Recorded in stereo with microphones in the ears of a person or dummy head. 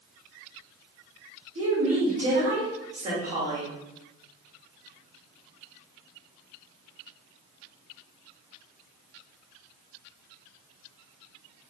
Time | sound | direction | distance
1.6 | a woman speaking | 35° right (ahead or behind) | 1.3 m